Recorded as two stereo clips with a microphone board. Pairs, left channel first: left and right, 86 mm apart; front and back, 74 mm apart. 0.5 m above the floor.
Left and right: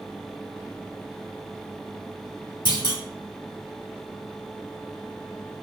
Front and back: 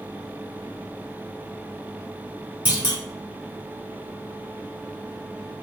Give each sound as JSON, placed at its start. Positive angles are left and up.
{"t": 2.6, "sound": "a clunk", "azimuth_deg": 110, "distance_m": 1.1}